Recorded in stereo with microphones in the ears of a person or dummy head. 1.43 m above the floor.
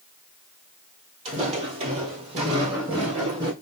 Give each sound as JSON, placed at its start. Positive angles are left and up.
{"t": 1.2, "sound": "footsteps", "side_deg": -35, "distance_m": 2.5}